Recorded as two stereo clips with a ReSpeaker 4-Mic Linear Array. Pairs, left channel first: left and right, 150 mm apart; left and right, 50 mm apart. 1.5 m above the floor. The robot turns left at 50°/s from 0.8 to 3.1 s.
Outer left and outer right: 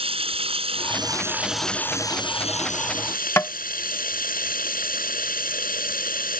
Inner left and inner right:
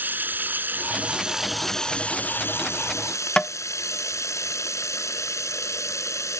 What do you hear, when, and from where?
0.0 s running water: 140° right; by 6.4 s 105° left
3.4 s tapping: 15° left (ahead or behind)